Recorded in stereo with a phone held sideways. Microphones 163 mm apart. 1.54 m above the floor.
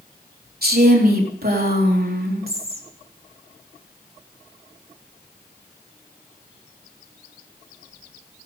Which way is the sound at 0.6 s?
70° right (ahead or behind).